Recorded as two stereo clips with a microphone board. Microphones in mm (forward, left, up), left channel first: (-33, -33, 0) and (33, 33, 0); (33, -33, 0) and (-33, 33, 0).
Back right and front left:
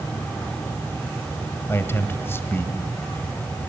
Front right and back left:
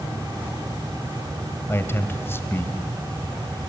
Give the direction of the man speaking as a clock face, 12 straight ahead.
3 o'clock.